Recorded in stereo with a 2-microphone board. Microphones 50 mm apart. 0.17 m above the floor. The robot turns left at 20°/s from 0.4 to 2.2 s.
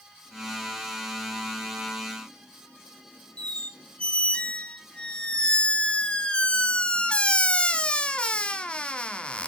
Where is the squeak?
20° left (ahead or behind), 1.1 m.